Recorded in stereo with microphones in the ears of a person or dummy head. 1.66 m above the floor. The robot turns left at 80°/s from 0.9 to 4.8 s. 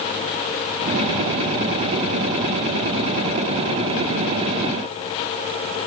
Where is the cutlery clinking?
I don't hear cutlery clinking.